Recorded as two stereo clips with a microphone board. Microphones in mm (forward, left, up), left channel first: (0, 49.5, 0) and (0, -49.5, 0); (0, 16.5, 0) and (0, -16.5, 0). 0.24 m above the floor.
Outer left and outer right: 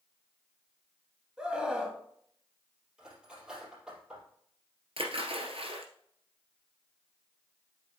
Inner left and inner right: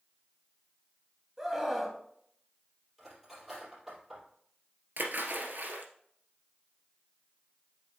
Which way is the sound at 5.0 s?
70° right (ahead or behind).